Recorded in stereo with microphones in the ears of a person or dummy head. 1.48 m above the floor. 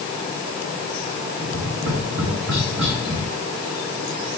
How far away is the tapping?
About 5 m.